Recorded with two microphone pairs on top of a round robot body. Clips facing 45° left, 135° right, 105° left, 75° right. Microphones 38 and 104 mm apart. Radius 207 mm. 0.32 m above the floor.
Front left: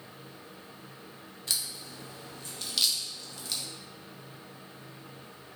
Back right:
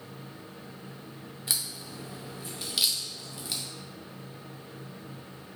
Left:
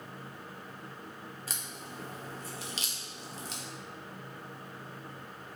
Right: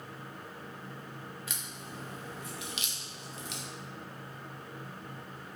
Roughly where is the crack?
Behind left.